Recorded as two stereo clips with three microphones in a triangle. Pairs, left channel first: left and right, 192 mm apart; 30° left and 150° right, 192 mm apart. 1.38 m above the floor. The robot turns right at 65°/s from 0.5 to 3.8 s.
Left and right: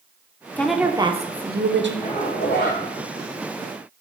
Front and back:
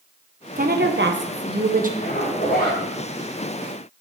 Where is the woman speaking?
170° left, 1.1 m; by 1.9 s 100° right, 1.1 m.